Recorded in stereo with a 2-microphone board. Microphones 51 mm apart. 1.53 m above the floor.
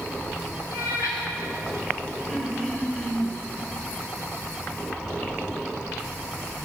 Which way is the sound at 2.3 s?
30° right (ahead or behind).